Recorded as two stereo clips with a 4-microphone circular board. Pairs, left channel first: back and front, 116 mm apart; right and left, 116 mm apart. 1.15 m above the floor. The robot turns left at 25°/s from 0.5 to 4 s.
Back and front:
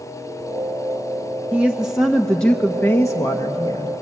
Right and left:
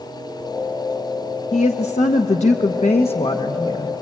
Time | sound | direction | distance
1.5 | a woman speaking | 75° right | 1.1 m